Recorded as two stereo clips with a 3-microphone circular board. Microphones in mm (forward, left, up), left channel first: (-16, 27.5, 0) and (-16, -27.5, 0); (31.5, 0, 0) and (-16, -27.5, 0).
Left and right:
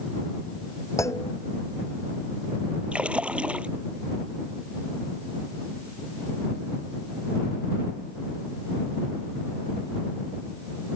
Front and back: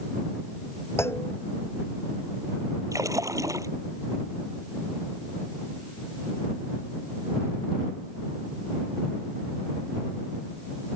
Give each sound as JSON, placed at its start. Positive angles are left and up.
{"t": 1.0, "sound": "a clunk", "azimuth_deg": 70}
{"t": 2.9, "sound": "a splash", "azimuth_deg": -160}